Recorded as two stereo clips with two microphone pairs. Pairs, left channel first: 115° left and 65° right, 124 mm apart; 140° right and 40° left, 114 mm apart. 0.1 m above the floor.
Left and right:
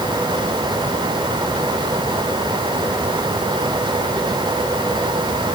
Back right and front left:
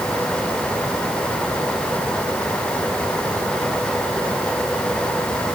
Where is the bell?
No bell in this recording.